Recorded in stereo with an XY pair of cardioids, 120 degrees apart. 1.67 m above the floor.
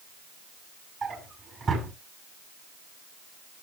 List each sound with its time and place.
1.0 s a drawer: 35° right, 6 m